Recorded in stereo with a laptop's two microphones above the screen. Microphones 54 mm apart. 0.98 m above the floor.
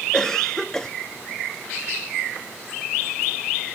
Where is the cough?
10° left (ahead or behind), 0.5 m.